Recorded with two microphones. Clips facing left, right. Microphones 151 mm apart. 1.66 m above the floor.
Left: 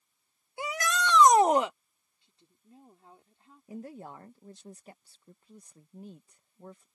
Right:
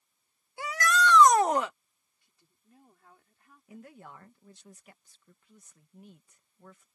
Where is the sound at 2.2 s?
25° left (ahead or behind).